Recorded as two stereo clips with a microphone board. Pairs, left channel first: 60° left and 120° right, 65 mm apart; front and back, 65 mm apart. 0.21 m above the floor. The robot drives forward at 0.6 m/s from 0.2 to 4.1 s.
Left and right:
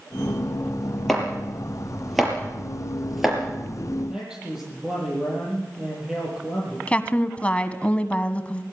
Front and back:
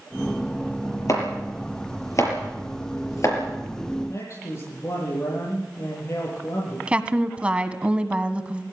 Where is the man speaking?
40° right, 8 m.